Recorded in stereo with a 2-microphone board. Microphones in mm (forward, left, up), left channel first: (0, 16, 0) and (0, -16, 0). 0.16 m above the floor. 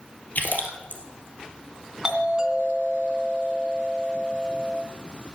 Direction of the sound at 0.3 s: 65° left (ahead or behind).